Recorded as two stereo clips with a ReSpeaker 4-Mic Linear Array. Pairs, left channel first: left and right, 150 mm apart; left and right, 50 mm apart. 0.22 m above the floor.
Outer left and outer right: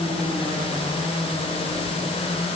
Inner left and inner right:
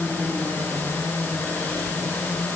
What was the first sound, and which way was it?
Only background noise.